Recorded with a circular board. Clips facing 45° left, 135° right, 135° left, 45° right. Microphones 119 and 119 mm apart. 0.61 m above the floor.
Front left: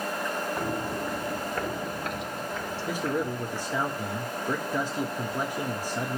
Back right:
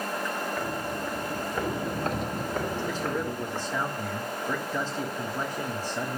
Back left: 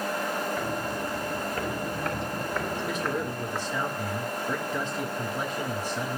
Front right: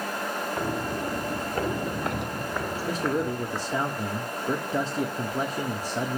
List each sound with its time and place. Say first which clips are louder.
0.6 s footsteps: front left 1 dB, front right 1 dB; 10° right, 1.0 m; by 3.7 s 140° right, 1.6 m
2.9 s a man speaking: front left 1 dB, front right 3 dB; 20° right, 1.2 m